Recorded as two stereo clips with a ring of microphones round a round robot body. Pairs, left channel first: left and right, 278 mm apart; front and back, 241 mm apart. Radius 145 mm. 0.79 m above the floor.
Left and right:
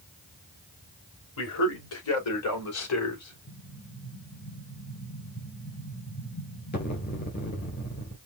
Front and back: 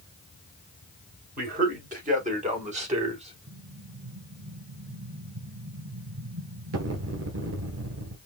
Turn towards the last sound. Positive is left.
turn(degrees=150)